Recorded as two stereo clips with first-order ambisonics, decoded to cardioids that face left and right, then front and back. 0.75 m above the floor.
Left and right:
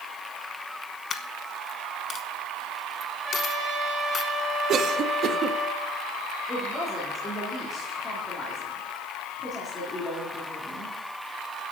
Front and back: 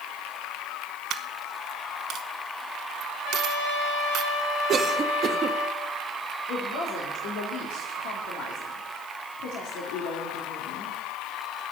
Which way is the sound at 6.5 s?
20° left.